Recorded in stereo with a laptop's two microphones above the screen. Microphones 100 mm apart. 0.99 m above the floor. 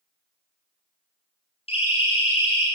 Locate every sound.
1.7 s a siren: 70° left (ahead or behind), 9 m